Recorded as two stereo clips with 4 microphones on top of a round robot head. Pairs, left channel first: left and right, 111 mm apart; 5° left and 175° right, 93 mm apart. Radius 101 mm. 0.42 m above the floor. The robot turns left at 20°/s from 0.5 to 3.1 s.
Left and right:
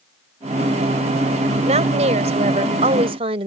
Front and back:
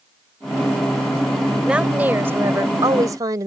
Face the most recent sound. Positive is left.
turn(degrees=-120)